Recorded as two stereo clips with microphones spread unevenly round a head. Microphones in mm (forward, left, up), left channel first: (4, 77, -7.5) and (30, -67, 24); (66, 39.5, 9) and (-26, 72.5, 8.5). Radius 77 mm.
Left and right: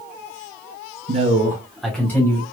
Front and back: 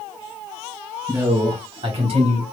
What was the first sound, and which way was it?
A man speaking, 125° right.